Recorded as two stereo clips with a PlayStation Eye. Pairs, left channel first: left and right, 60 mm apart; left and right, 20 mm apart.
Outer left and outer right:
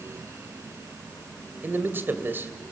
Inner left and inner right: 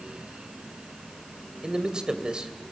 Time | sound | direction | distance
1.6 | a man speaking | 35° right (ahead or behind) | 2 m